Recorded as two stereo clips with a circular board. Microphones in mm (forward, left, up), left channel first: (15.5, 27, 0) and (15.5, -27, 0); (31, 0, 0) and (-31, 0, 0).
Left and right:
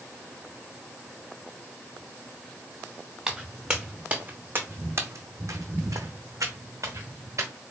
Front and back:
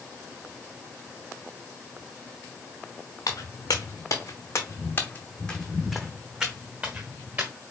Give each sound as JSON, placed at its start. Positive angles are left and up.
{"t": 3.3, "sound": "footsteps", "azimuth_deg": -10, "distance_m": 1.3}